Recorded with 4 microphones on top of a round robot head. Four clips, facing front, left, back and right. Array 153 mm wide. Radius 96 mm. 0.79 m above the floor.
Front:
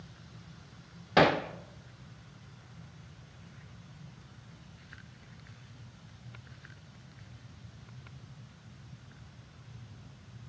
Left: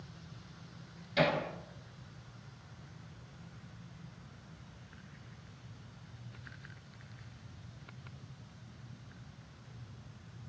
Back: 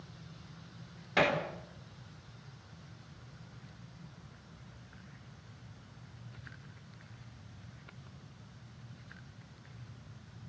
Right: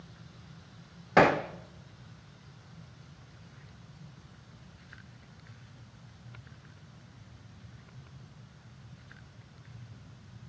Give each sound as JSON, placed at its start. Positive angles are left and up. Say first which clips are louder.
{"t": 1.2, "sound": "hammering", "louder": "right 8 dB, front 6 dB", "azimuth_deg": -65, "distance_m": 2.0}